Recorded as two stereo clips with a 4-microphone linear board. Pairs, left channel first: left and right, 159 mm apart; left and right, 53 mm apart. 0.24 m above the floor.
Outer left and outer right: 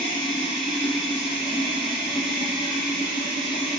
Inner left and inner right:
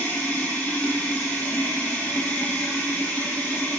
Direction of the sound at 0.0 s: 30° left (ahead or behind).